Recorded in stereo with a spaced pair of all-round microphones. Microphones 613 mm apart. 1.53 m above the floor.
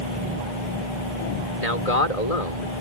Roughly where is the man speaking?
Left.